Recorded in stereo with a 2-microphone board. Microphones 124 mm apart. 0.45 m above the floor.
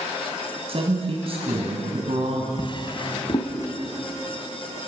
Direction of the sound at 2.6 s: 40° left (ahead or behind).